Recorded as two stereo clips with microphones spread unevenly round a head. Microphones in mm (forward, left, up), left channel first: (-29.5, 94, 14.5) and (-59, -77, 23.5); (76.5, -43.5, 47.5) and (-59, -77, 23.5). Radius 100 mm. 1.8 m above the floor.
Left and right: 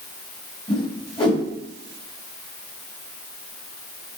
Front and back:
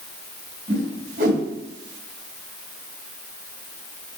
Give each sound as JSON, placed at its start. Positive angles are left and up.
{"t": 0.7, "sound": "a whoosh", "azimuth_deg": 145, "distance_m": 3.0}